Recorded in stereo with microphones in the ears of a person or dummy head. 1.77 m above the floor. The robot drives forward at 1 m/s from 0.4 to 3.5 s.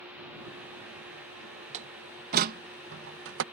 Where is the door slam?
40° right (ahead or behind); by 3.4 s 70° right (ahead or behind).